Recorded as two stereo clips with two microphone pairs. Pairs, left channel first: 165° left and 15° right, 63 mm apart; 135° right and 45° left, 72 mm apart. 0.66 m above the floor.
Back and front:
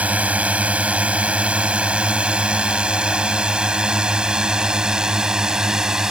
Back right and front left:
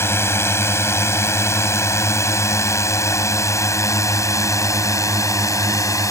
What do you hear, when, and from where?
0.0 s a drone: 85° right; by 6.1 s 95° right